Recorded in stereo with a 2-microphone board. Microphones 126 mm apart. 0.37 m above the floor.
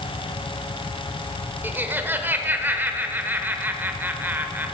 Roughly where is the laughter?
Centre.